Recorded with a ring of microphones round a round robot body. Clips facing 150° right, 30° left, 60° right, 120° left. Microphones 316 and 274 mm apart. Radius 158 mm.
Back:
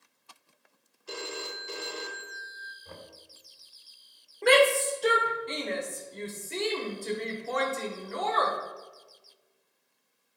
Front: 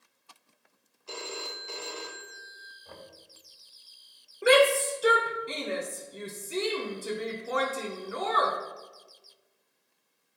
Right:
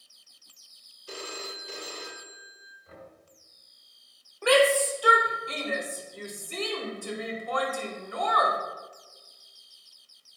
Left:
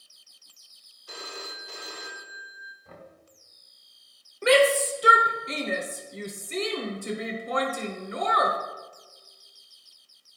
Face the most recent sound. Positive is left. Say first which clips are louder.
# front 1 dB, left 1 dB
turn(degrees=105)